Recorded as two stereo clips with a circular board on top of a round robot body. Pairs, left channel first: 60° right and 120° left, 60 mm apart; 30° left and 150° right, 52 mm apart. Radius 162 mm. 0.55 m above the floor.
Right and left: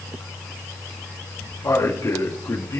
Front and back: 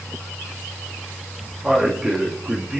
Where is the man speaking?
75° right, 2.5 m.